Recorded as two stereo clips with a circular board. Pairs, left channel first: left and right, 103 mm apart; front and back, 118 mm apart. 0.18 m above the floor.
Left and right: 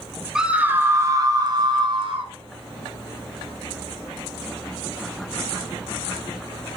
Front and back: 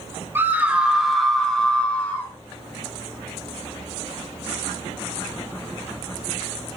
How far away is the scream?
About 1.0 m.